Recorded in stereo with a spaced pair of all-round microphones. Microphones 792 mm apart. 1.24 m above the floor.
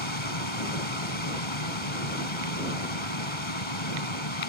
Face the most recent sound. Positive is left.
turn(degrees=40)  # may be behind; listen again after turning